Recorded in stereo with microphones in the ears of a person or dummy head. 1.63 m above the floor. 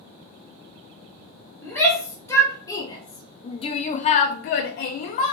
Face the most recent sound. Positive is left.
turn(degrees=30)  # may be behind; listen again after turning